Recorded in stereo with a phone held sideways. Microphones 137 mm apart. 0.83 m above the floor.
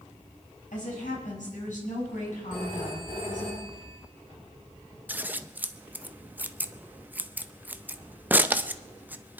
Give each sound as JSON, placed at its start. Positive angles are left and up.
{"t": 0.7, "sound": "a woman speaking", "side_deg": 80, "distance_m": 5.5}
{"t": 2.5, "sound": "a phone ringing", "side_deg": 85, "distance_m": 7.0}
{"t": 5.1, "sound": "scissors", "side_deg": -15, "distance_m": 0.6}